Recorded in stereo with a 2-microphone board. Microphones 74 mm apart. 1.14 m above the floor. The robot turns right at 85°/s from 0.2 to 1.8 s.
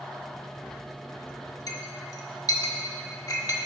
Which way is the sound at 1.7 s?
60° left (ahead or behind).